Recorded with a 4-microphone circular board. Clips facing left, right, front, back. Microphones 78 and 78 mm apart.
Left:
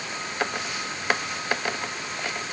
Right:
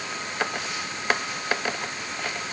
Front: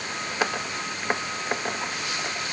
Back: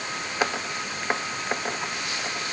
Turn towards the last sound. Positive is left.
No sound to turn to.